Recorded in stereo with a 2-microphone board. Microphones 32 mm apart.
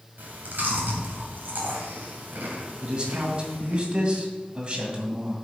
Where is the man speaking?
30° right (ahead or behind), 2 m.